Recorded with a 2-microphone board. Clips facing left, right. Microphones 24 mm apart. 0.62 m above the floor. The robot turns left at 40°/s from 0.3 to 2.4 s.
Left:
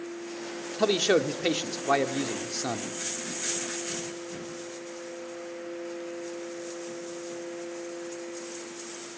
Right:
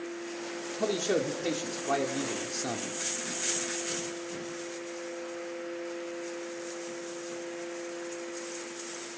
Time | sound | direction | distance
0.8 | a man speaking | 95° left | 1.3 m